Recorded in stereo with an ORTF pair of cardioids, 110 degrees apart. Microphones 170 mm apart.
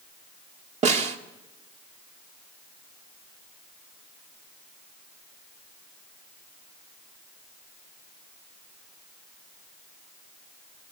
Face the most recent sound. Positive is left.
turn(degrees=-45)